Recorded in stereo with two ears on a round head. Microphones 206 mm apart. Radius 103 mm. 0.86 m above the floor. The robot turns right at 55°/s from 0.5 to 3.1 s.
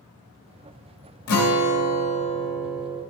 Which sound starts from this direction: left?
A guitar, at 1.3 s.